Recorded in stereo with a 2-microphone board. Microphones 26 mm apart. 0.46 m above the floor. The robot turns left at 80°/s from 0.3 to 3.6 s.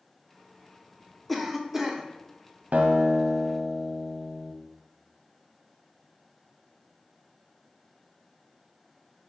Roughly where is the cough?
Centre.